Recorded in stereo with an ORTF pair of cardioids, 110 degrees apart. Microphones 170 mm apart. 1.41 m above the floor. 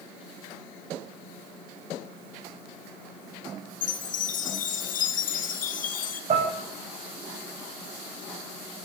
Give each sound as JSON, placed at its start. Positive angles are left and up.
{"t": 3.8, "sound": "a chime", "azimuth_deg": 50, "distance_m": 1.7}
{"t": 6.3, "sound": "dishes clattering", "azimuth_deg": -45, "distance_m": 5.0}